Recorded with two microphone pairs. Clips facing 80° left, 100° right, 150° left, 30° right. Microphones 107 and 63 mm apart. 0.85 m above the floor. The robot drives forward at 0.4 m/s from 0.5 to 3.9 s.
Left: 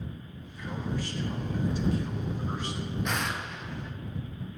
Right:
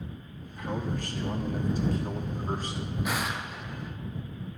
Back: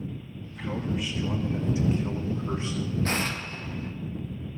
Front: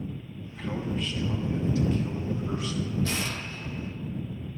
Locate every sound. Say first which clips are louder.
0.4 s a man speaking: right 3 dB, back 1 dB; 125° right, 1.2 m; by 3.0 s 150° right, 1.9 m
3.0 s an explosion: right 2 dB, back 3 dB; 175° left, 0.7 m